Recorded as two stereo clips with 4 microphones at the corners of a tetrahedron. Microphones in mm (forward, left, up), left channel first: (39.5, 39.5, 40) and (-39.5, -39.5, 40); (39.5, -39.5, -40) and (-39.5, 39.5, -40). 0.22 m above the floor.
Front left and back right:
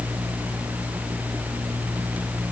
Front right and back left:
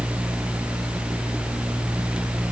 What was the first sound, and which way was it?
Only background noise.